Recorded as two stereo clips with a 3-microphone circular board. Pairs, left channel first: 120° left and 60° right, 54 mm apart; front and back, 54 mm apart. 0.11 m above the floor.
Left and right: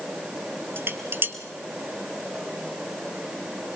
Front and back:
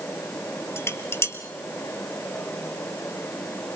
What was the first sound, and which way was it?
Dishes clattering, 25° right.